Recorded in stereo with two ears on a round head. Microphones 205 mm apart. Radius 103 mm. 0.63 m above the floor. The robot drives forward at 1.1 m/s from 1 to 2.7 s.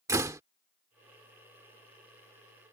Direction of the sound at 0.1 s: 15° right (ahead or behind).